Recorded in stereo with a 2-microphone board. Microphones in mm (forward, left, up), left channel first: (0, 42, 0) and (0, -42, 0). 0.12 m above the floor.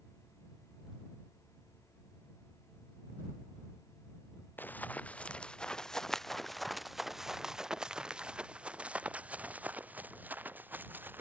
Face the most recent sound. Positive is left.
turn(degrees=-25)  # may be behind; listen again after turning